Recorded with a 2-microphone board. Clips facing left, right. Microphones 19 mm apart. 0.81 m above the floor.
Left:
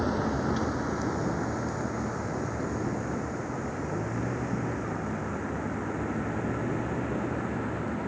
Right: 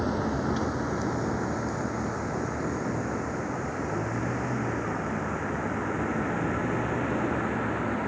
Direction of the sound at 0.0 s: 5° left (ahead or behind).